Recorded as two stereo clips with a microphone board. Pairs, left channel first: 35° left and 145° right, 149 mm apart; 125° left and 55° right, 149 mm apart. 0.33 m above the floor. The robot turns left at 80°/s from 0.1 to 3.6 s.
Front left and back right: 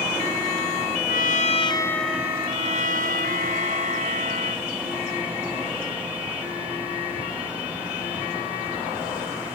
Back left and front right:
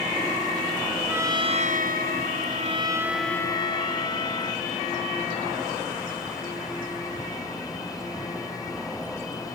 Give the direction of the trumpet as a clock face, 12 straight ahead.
11 o'clock.